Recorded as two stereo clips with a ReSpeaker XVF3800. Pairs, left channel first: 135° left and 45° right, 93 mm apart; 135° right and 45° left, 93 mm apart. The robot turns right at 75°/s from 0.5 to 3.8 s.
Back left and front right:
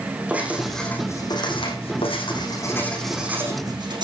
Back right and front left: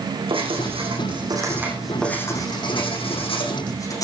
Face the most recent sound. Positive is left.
turn(degrees=-85)